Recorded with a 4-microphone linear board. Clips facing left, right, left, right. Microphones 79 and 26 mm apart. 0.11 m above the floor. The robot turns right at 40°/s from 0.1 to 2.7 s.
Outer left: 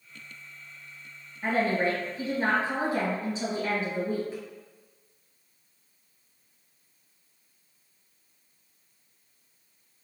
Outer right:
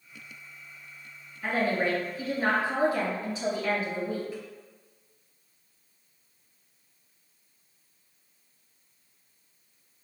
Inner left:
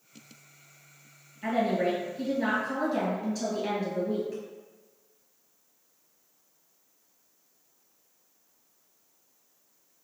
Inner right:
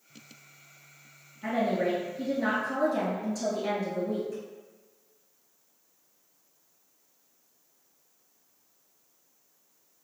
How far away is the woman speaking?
About 1.9 m.